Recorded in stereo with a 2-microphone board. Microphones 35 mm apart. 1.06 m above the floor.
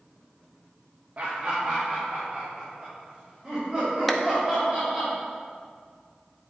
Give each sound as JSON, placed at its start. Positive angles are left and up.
{"t": 1.2, "sound": "laughter", "side_deg": -45, "distance_m": 1.0}
{"t": 4.1, "sound": "a clap", "side_deg": 5, "distance_m": 0.7}